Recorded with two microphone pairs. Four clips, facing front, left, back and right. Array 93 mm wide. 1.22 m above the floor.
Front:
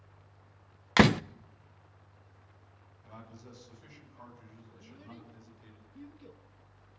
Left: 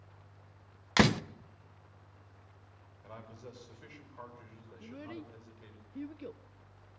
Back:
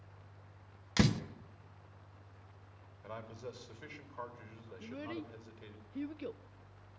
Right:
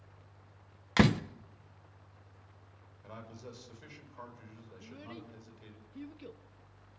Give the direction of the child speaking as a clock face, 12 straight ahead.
7 o'clock.